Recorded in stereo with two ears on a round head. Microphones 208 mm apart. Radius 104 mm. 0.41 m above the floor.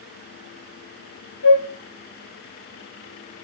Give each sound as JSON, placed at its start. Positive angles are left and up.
{"t": 1.4, "sound": "a flute", "side_deg": 65, "distance_m": 1.2}